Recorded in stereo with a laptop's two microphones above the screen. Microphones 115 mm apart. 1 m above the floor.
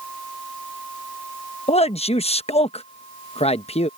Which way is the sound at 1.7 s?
60° left (ahead or behind).